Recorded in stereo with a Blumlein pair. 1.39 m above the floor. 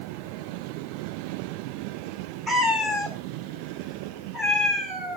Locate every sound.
2.5 s a cat meowing: 5° right, 2 m